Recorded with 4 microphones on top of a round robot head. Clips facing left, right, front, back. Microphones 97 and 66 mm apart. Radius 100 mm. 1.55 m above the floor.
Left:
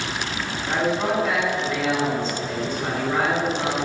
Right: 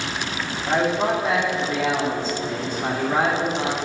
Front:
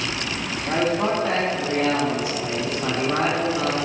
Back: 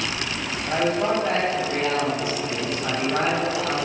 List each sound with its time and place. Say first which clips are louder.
0.7 s a man speaking: right 2 dB, even; 25° right, 2 m